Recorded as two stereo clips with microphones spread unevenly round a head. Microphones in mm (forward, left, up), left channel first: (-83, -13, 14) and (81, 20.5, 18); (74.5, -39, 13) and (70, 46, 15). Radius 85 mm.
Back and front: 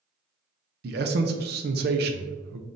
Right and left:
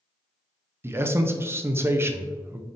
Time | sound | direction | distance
0.8 | a man speaking | 35° left | 0.6 m